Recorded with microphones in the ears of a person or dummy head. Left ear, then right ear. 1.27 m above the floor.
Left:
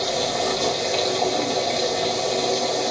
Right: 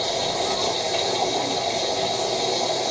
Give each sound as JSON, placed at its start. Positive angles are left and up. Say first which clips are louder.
{"t": 0.0, "sound": "a machine running", "louder": "left 1 dB", "side_deg": 20, "distance_m": 1.3}